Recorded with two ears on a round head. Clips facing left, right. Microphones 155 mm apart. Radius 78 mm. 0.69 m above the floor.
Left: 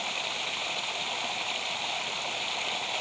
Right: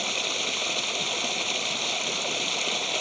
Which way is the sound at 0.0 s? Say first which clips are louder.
Right 4 dB; 50° right (ahead or behind).